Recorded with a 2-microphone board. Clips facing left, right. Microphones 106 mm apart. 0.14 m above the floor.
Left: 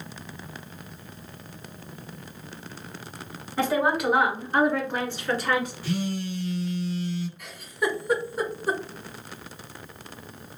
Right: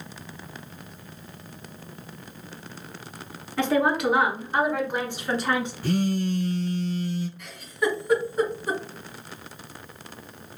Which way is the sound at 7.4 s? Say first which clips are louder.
Right 2 dB; 5° left (ahead or behind).